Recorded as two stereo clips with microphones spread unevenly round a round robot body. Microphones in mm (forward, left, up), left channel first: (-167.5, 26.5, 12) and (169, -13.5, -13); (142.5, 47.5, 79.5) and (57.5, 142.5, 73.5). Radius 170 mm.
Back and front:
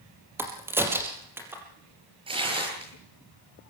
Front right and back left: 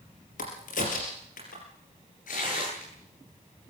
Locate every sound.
0.4 s a crack: 90° right, 4 m
2.3 s tearing paper: 80° right, 9.5 m